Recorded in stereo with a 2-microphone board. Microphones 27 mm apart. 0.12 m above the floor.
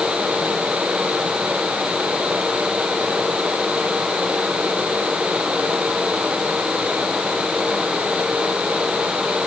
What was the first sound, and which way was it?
Only background noise.